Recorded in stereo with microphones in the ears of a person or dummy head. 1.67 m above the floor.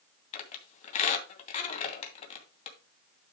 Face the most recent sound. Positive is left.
turn(degrees=40)  # may be behind; listen again after turning